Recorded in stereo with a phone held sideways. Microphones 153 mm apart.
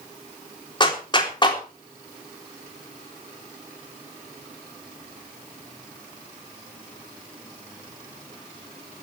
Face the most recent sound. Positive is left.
turn(degrees=30)  # may be behind; listen again after turning